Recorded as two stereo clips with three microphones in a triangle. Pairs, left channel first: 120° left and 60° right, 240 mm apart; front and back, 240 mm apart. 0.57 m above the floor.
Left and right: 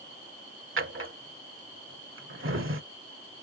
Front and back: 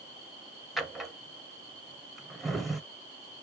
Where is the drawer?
90° right, 0.6 m.